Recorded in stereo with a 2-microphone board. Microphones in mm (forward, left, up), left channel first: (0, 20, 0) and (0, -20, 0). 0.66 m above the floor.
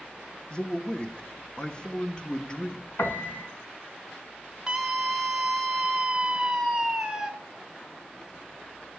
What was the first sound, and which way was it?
A man speaking, 20° left (ahead or behind).